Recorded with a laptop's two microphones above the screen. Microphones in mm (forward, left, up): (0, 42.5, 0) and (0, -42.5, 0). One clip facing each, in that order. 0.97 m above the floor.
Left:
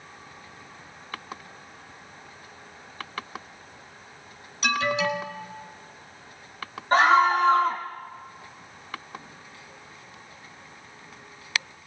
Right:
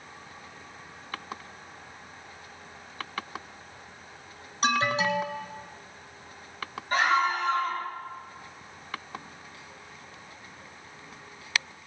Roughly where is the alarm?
Right.